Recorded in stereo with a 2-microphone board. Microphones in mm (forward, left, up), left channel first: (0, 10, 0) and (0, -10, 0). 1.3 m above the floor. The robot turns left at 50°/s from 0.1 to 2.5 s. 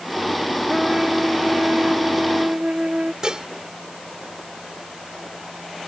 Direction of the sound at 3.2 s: 35° right (ahead or behind).